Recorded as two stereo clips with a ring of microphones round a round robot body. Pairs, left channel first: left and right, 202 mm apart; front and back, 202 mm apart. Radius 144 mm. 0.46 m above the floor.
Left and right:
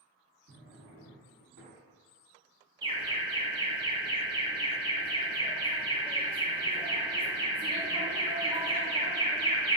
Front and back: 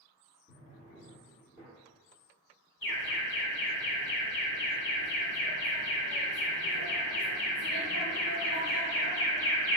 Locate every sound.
0.5 s a drawer: 80° right, 1.0 m
2.8 s an alarm: 25° right, 0.9 m